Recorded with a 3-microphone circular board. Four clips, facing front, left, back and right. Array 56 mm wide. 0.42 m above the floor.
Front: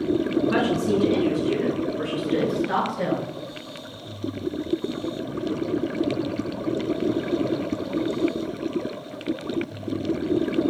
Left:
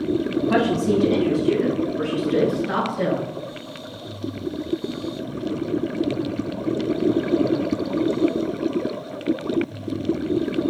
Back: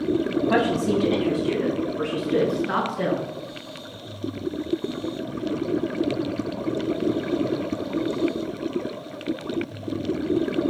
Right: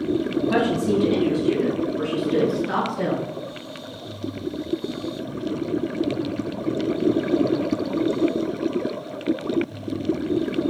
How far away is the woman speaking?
About 2.5 m.